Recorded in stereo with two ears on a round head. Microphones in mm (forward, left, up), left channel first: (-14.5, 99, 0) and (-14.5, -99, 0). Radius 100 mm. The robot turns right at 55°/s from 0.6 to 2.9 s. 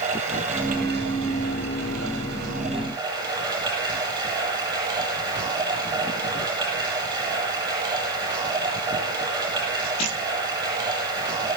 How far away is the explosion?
No explosion in this recording.